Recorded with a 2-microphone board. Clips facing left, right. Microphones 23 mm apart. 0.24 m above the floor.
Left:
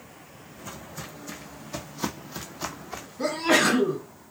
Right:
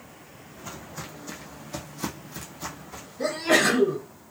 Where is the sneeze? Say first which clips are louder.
Even; 35° left (ahead or behind), 1.8 m.